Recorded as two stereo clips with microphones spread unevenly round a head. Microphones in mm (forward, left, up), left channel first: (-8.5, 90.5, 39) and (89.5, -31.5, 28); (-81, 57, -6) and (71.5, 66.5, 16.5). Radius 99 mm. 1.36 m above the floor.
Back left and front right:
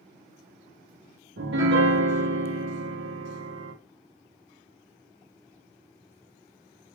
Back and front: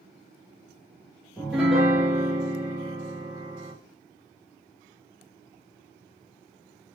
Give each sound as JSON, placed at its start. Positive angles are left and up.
{"t": 1.4, "sound": "a piano", "azimuth_deg": -85, "distance_m": 0.7}